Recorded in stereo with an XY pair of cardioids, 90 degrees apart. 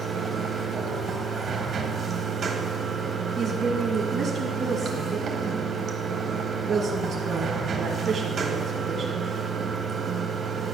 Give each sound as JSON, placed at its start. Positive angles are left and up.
{"t": 0.0, "sound": "running water", "azimuth_deg": -55, "distance_m": 1.5}
{"t": 3.4, "sound": "a woman speaking", "azimuth_deg": -60, "distance_m": 1.7}